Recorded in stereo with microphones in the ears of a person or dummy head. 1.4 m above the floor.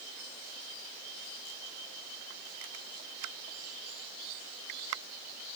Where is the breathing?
No breathing in this recording.